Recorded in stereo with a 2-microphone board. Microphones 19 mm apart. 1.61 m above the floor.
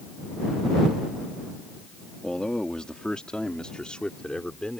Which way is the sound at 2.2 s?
50° left (ahead or behind).